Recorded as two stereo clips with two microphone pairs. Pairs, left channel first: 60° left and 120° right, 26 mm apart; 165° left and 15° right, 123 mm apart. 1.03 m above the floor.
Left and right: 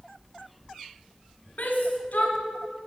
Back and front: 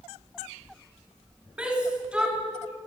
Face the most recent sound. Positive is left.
turn(degrees=65)